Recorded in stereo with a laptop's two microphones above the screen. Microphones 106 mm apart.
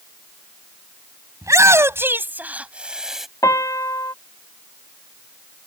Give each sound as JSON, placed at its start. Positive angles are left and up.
{"t": 1.4, "sound": "a shout", "side_deg": -30}
{"t": 3.4, "sound": "a piano", "side_deg": 35}